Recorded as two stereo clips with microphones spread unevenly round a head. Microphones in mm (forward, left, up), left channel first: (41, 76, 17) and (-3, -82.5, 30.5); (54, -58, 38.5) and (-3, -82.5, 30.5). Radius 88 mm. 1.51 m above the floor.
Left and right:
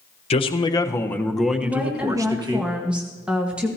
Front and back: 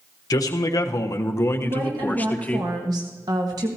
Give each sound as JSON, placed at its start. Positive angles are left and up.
{"t": 0.3, "sound": "a man speaking", "azimuth_deg": 20, "distance_m": 1.1}
{"t": 1.6, "sound": "a woman speaking", "azimuth_deg": 170, "distance_m": 1.4}